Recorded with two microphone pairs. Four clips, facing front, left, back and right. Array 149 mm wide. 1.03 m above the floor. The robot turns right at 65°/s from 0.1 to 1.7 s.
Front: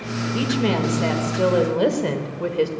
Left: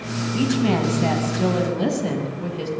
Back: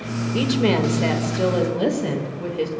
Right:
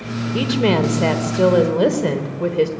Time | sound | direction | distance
0.3 | a woman speaking | 135° right | 3.5 m